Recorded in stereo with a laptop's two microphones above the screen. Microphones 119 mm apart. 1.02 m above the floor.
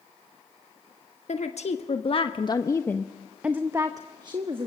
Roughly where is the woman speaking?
Left.